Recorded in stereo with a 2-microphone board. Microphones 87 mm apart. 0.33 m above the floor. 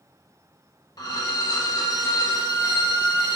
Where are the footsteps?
I don't hear footsteps.